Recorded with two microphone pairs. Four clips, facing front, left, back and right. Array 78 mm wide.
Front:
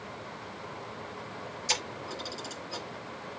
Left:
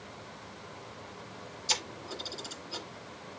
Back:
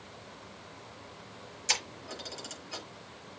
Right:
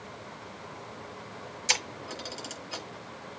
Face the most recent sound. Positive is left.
turn(degrees=-95)